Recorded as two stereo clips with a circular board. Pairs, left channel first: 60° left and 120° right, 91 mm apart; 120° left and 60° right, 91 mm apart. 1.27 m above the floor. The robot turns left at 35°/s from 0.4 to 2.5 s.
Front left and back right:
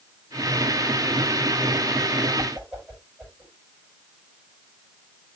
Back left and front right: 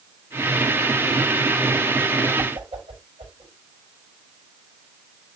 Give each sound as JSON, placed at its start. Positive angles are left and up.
{"t": 2.4, "sound": "a whoosh", "azimuth_deg": -35, "distance_m": 5.0}